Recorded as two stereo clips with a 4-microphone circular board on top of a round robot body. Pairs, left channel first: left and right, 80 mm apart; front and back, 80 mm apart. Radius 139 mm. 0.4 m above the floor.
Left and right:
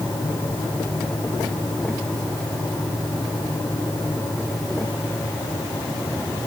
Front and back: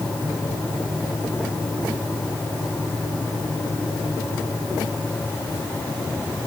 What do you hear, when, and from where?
Only background noise.